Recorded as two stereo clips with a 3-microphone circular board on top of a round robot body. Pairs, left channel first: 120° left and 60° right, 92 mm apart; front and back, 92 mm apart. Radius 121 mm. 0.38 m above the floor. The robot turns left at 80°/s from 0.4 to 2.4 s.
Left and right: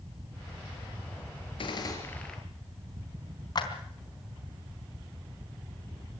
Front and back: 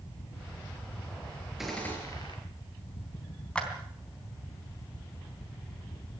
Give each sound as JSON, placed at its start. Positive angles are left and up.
{"t": 1.6, "sound": "a gunshot", "azimuth_deg": 95, "distance_m": 4.5}
{"t": 3.5, "sound": "a clap", "azimuth_deg": 80, "distance_m": 3.5}